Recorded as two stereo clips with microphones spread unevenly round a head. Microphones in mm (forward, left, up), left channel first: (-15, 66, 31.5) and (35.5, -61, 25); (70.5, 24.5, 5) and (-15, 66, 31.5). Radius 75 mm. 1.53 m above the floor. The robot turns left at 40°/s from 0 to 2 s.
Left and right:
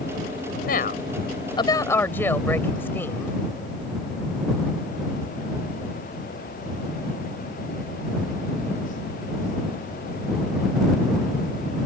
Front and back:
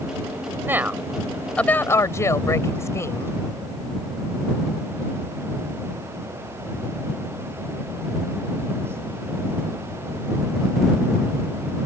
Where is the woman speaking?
90° left; by 3.4 s 35° left.